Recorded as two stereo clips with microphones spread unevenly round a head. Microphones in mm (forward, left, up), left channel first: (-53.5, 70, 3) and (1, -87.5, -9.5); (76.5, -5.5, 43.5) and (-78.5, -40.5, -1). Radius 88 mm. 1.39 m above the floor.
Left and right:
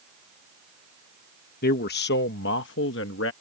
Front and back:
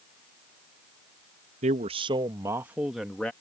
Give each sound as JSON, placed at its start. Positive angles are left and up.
{"t": 1.6, "sound": "a man speaking", "azimuth_deg": 140}